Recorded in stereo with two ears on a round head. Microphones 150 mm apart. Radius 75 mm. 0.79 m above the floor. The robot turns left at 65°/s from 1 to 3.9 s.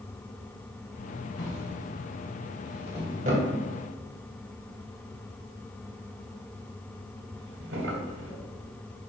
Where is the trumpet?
No trumpet in this recording.